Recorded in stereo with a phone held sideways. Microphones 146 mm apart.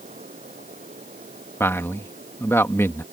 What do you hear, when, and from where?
0.0 s a fan: 65° right (ahead or behind)
1.6 s a man speaking: 20° left (ahead or behind)